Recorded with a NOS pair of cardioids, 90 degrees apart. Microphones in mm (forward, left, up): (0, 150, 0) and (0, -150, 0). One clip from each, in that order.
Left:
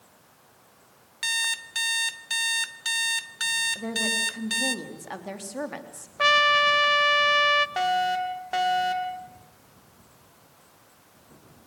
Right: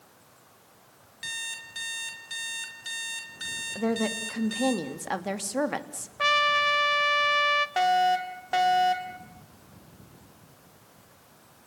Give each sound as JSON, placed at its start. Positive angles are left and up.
{"t": 1.2, "sound": "an alarm clock", "azimuth_deg": 65, "distance_m": 2.0}
{"t": 3.8, "sound": "a woman speaking", "azimuth_deg": -40, "distance_m": 3.0}
{"t": 6.2, "sound": "a trumpet", "azimuth_deg": 20, "distance_m": 1.0}
{"t": 7.8, "sound": "a fire alarm", "azimuth_deg": -10, "distance_m": 3.0}